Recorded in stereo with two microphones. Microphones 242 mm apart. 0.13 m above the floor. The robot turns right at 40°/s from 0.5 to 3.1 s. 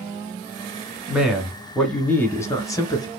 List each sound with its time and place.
1.1 s a man speaking: 5° right (ahead or behind), 1.0 m; by 3.1 s 15° left (ahead or behind), 1.0 m